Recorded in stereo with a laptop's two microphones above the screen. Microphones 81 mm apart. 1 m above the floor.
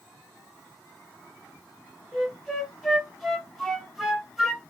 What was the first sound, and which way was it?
A flute, centre (ahead or behind).